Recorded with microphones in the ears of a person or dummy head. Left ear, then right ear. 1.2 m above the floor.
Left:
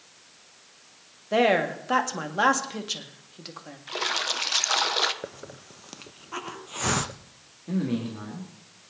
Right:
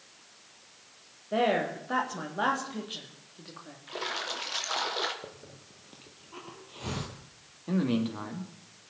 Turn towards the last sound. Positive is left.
turn(degrees=-40)  # may be behind; listen again after turning